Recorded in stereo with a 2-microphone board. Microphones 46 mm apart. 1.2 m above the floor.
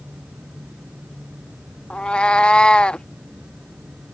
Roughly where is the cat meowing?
Left.